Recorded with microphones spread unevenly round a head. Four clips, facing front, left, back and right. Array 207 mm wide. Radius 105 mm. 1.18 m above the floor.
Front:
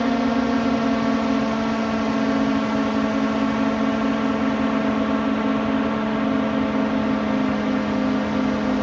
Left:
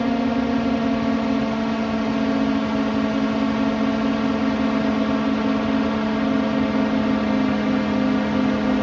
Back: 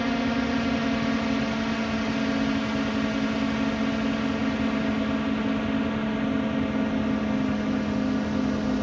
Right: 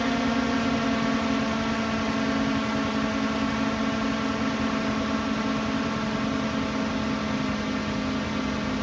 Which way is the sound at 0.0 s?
25° left.